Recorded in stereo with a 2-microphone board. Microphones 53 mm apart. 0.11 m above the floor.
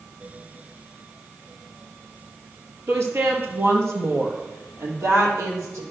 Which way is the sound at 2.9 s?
55° right (ahead or behind).